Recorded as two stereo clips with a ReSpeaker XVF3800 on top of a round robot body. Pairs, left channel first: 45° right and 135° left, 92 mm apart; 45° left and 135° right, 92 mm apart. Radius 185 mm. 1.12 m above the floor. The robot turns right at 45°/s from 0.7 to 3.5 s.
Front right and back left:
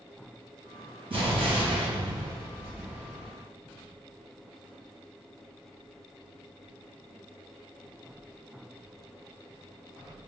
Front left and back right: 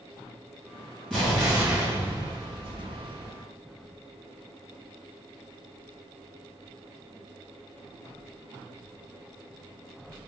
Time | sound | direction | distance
1.1 | an explosion | 125° left | 1.8 m